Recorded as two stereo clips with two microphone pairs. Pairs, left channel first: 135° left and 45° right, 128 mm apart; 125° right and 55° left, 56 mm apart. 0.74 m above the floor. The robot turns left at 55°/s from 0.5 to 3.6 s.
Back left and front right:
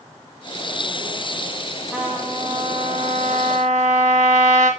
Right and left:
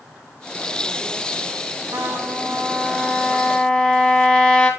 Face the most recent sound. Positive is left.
turn(degrees=-50)